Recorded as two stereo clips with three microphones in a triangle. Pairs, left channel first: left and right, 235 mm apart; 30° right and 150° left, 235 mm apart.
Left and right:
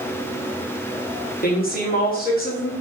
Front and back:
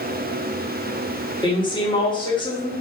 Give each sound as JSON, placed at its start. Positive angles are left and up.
{"t": 1.4, "sound": "a woman speaking", "azimuth_deg": 40, "distance_m": 1.1}